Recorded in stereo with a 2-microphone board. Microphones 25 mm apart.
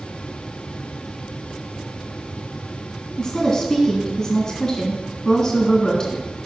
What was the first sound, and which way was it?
A woman speaking, 25° left (ahead or behind).